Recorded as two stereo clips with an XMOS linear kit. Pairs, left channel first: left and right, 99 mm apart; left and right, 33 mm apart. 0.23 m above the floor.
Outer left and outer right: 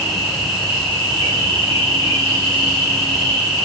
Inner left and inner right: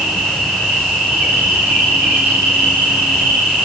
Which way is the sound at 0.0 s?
55° right (ahead or behind).